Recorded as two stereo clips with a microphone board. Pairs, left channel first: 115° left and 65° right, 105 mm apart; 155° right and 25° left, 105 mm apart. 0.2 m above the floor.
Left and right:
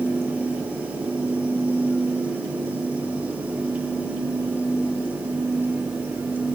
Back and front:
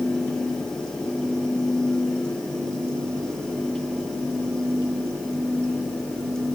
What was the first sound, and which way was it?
Only background noise.